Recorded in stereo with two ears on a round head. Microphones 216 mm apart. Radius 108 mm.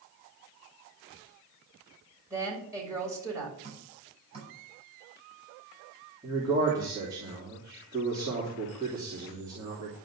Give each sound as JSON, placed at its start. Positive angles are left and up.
{"t": 2.3, "sound": "a woman speaking", "side_deg": -10, "distance_m": 6.0}
{"t": 3.6, "sound": "dripping", "side_deg": -25, "distance_m": 8.0}
{"t": 6.2, "sound": "a man speaking", "side_deg": -15, "distance_m": 3.0}